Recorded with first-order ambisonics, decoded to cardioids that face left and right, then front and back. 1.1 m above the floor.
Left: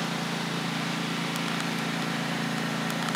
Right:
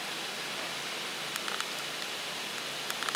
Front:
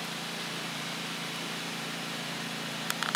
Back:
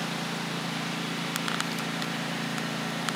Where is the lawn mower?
115° left; by 3.2 s 110° left.